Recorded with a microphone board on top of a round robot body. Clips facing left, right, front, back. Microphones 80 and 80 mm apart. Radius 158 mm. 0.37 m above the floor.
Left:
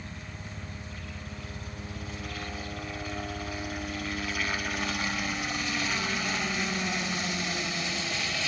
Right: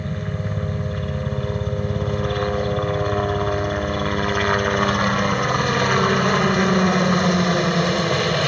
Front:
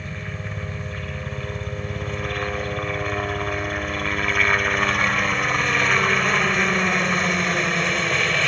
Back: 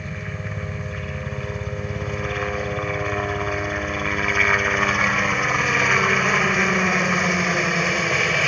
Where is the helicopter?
95° right.